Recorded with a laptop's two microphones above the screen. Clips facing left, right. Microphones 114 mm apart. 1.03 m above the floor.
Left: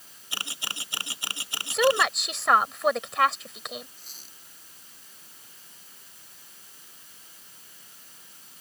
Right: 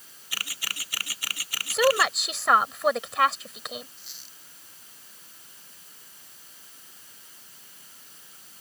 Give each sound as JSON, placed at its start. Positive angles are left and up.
{"t": 0.3, "sound": "a camera shutter", "side_deg": 25}
{"t": 1.7, "sound": "a woman speaking", "side_deg": 0}
{"t": 4.0, "sound": "a squeak", "side_deg": 45}